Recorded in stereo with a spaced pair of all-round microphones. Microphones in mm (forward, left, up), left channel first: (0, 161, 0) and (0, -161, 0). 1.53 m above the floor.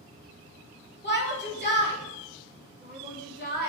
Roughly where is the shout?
Left.